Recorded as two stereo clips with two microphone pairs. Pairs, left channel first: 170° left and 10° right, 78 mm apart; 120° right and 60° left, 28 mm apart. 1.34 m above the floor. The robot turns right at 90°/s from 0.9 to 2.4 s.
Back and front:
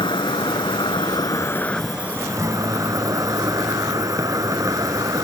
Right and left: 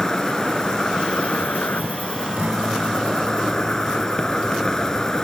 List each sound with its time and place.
0.0 s an insect: 170° left; by 5.2 s 55° right
2.4 s a guitar: 35° left; by 5.1 s 40° left